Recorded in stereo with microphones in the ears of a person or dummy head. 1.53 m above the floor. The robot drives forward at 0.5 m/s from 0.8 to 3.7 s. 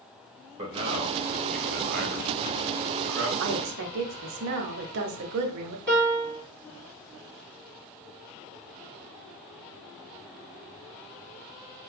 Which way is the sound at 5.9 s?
5° left (ahead or behind).